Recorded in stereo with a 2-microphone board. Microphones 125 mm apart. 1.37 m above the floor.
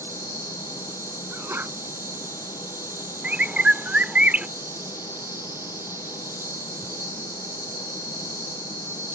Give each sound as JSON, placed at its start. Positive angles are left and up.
{"t": 0.0, "sound": "an insect", "side_deg": -20}
{"t": 1.3, "sound": "a sneeze", "side_deg": -20}
{"t": 3.2, "sound": "a bird", "side_deg": -10}